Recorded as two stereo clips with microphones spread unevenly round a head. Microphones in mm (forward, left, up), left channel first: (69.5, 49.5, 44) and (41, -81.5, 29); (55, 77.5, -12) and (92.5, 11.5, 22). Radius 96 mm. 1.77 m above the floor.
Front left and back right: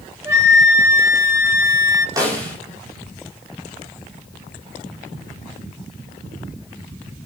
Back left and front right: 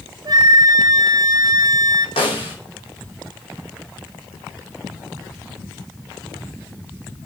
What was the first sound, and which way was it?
A flute, 30° right.